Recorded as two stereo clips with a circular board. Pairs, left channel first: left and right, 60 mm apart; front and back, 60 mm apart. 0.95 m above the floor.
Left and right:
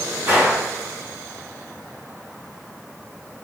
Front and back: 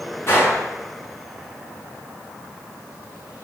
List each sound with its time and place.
0.3 s a gunshot: 40° right, 3 m